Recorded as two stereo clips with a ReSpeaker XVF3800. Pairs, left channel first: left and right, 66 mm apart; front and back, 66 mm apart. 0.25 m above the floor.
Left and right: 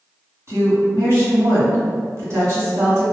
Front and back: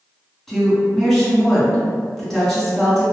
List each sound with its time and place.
0.5 s a woman speaking: 80° right, 1.9 m